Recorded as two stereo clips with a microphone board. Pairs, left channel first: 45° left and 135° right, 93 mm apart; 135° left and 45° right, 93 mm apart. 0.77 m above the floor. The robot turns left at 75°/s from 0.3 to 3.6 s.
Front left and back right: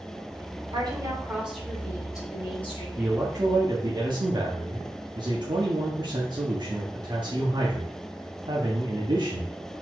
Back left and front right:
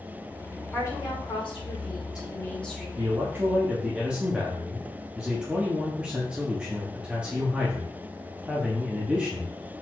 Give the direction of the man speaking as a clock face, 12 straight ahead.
2 o'clock.